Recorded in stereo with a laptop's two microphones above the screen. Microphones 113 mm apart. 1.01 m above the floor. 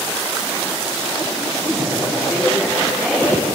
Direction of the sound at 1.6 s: 10° right (ahead or behind).